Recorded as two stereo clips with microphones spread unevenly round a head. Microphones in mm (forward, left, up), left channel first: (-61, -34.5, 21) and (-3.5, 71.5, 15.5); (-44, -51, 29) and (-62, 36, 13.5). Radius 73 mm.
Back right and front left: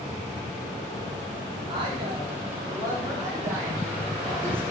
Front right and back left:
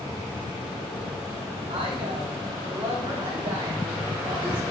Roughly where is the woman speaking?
Left.